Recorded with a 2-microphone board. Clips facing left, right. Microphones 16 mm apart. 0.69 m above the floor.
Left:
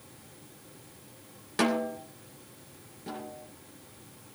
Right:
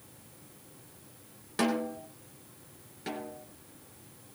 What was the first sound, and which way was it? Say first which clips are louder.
A snare drum: left 2 dB; 20° left (ahead or behind).